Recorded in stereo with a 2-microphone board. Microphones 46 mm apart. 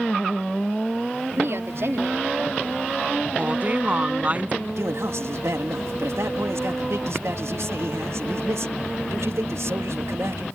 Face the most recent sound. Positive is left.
turn(degrees=-75)  # may be behind; listen again after turning